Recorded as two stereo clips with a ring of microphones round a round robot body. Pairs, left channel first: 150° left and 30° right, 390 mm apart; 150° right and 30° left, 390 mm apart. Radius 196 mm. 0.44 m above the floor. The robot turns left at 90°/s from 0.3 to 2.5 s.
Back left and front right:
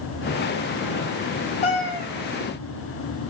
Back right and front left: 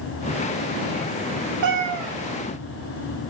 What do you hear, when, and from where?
1.6 s a cat meowing: 80° left, 1.7 m; by 2.1 s 35° left, 1.7 m